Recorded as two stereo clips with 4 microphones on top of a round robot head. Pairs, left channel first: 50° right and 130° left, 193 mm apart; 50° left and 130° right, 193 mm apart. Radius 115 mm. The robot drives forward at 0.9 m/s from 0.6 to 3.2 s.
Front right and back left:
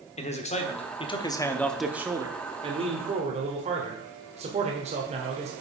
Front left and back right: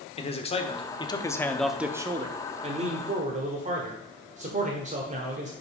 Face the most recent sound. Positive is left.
turn(degrees=180)